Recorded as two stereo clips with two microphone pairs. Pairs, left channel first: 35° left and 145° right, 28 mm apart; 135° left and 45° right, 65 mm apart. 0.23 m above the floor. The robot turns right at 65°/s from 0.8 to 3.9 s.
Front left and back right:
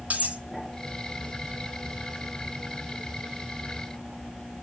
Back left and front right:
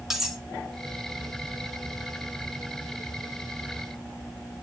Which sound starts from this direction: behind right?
Cutlery clinking, at 0.1 s.